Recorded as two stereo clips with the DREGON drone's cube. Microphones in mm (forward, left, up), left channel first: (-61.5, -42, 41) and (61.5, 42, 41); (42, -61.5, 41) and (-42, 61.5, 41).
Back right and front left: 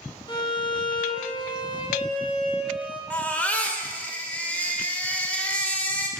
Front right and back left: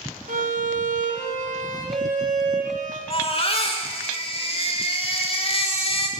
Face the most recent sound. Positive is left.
turn(degrees=-70)